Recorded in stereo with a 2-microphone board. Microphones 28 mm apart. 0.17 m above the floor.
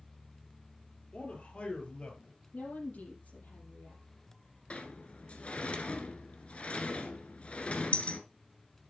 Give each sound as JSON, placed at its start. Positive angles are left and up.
{"t": 1.1, "sound": "a man speaking", "side_deg": 50, "distance_m": 3.5}
{"t": 2.5, "sound": "a woman speaking", "side_deg": 75, "distance_m": 6.0}
{"t": 4.7, "sound": "a sliding door", "side_deg": 50, "distance_m": 1.3}